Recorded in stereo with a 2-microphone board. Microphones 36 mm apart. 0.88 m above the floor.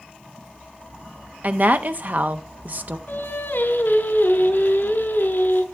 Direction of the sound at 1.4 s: 50° right (ahead or behind).